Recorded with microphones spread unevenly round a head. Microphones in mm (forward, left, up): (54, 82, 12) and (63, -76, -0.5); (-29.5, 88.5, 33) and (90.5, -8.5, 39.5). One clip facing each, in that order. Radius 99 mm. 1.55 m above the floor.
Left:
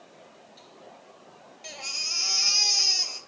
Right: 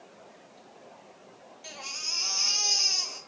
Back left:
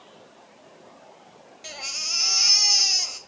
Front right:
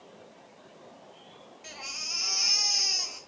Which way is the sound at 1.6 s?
140° left.